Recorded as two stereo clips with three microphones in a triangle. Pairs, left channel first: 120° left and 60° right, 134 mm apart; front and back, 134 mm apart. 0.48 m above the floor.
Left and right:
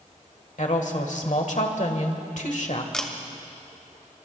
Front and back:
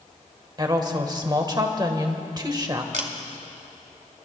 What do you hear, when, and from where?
0.6 s a woman speaking: 125° left, 1.5 m
2.9 s a camera shutter: 155° right, 1.3 m